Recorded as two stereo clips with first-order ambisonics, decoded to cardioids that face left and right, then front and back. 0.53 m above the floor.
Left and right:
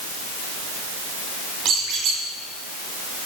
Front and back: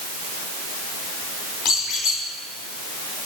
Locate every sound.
1.6 s a squeak: 35° right, 1.4 m